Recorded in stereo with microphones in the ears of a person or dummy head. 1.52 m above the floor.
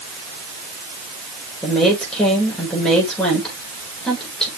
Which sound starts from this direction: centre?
A woman speaking, at 1.6 s.